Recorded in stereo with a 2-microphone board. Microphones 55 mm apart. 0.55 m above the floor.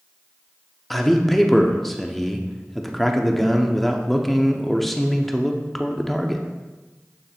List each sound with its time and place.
0.9 s a man speaking: centre (ahead or behind), 0.7 m